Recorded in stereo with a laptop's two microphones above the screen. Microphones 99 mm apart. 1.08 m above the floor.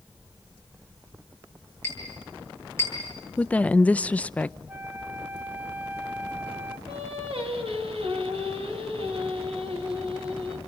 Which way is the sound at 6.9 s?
70° right (ahead or behind).